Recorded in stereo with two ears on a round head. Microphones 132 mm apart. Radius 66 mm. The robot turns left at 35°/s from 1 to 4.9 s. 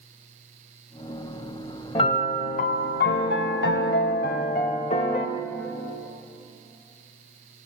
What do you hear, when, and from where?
1.9 s a piano: 145° left, 0.6 m; by 5.3 s 45° left, 0.6 m